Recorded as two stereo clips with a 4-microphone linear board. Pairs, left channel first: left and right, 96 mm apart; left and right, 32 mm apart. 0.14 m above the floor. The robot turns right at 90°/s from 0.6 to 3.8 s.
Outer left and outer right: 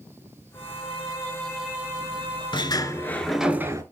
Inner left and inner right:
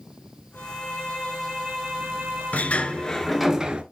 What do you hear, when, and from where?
0.5 s a violin: 95° left, 4.5 m; by 3.5 s 5° right, 4.5 m
2.5 s a sliding door: 110° left, 0.8 m; by 3.8 s 140° right, 0.8 m